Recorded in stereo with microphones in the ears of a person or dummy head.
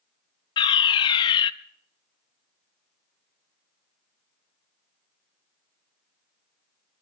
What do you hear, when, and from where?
0.6 s a fire alarm: 20° left (ahead or behind), 0.7 m